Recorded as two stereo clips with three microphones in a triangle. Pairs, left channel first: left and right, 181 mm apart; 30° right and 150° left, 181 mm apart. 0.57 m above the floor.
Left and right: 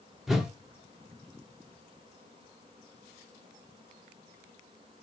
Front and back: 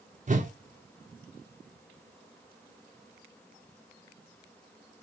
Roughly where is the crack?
No crack in this recording.